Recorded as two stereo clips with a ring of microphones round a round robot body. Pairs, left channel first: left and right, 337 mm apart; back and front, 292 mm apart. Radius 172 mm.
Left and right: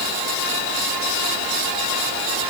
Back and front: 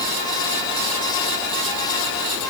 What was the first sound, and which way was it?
Only background noise.